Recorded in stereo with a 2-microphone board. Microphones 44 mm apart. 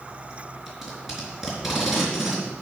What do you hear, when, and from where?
0.7 s tape being pulled: 5° right (ahead or behind), 4 m